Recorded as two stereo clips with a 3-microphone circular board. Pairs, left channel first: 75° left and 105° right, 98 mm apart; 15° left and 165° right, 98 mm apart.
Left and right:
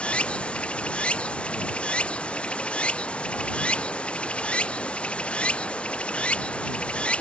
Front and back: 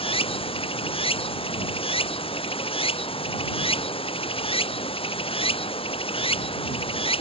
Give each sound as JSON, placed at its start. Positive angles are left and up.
{"t": 0.0, "sound": "running water", "azimuth_deg": -5}